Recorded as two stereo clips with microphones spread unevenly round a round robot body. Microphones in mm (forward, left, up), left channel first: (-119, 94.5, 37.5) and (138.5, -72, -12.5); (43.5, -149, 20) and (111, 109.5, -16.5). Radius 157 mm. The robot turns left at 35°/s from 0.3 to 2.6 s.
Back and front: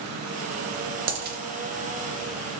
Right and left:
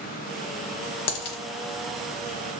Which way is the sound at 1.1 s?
85° right.